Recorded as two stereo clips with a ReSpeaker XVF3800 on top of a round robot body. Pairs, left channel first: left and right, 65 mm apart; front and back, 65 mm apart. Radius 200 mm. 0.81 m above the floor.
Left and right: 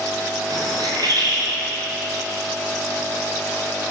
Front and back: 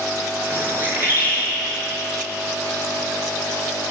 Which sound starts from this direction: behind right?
A bird, at 0.5 s.